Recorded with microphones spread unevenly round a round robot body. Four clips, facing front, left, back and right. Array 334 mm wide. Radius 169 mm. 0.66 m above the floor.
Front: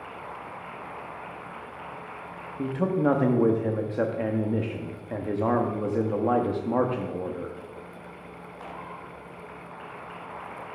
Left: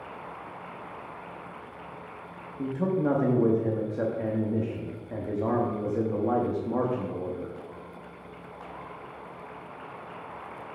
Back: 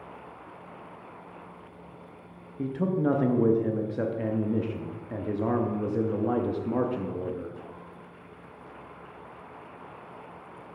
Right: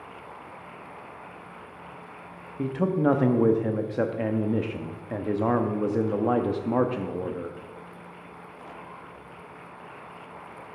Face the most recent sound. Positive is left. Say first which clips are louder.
# right 3 dB, front 2 dB
turn(degrees=-70)